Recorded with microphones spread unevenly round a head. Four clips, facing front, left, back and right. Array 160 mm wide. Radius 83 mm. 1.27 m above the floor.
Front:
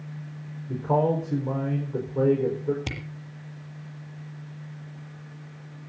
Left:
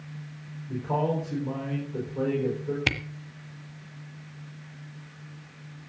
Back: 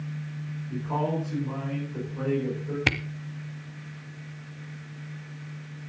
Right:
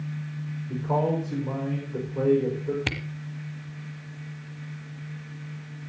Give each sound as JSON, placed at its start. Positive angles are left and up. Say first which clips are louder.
{"t": 0.7, "sound": "a man speaking", "louder": "right 2 dB, front 6 dB", "azimuth_deg": -15, "distance_m": 5.0}
{"t": 2.9, "sound": "a camera shutter", "louder": "left 2 dB, back 7 dB", "azimuth_deg": 145, "distance_m": 1.1}